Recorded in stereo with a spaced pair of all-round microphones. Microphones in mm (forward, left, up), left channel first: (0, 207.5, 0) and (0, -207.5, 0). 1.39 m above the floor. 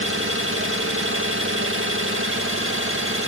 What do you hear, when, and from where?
0.0 s an engine running: 30° right (ahead or behind), 1.7 m